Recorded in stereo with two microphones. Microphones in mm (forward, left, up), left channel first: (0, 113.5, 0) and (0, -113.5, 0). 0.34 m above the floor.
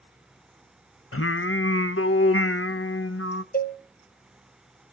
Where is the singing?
70° left (ahead or behind), 0.5 m.